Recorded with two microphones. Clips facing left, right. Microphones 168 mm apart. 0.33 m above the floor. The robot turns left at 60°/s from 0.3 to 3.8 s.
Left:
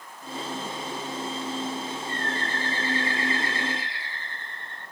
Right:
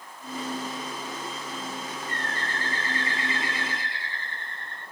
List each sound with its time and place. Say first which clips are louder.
2.1 s a bird: left 3 dB; 80° right, 10 m; by 4.8 s straight behind, 10 m